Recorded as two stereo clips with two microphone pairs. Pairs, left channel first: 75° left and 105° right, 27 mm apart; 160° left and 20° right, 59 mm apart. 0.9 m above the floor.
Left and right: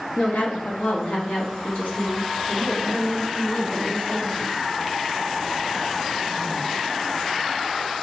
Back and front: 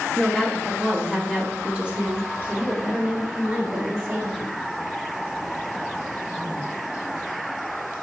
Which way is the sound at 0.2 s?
80° left.